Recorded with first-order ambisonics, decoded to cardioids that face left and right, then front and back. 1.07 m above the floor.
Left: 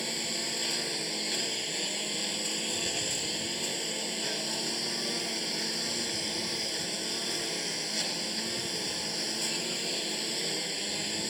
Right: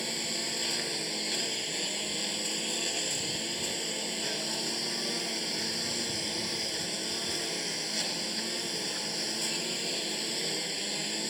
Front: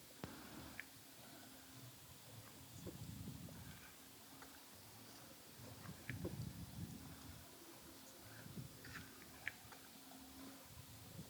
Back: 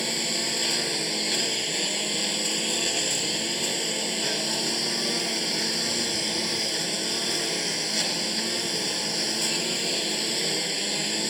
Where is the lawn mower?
Straight behind.